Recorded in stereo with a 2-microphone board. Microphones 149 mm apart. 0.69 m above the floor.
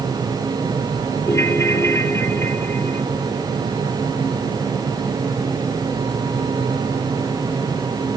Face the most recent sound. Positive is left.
turn(degrees=20)  # may be behind; listen again after turning